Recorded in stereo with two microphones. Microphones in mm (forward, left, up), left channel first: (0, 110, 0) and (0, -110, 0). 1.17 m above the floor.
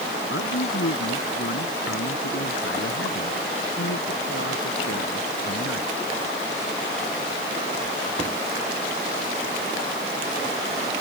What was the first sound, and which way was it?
A man speaking, 70° left (ahead or behind).